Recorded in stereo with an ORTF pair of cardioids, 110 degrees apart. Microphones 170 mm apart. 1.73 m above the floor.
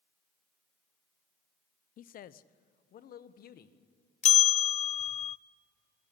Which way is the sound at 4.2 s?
40° left.